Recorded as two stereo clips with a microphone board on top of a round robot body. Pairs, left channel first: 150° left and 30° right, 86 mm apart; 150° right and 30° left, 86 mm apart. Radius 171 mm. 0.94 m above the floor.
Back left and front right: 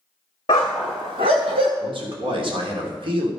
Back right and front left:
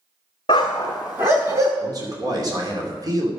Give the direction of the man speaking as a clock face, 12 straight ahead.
12 o'clock.